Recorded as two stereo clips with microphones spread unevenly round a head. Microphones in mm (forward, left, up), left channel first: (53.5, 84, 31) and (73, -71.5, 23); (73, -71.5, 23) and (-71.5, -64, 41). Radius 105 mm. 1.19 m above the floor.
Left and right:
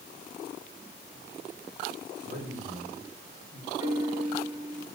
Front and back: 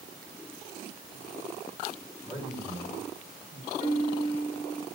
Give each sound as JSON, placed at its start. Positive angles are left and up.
{"t": 2.2, "sound": "a man speaking", "azimuth_deg": -60, "distance_m": 10.0}
{"t": 3.8, "sound": "a piano", "azimuth_deg": -10, "distance_m": 4.5}